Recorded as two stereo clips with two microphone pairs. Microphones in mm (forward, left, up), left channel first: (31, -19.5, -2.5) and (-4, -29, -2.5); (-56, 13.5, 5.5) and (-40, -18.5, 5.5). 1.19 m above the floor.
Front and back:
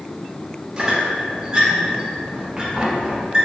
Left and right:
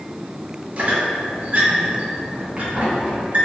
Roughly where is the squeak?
Right.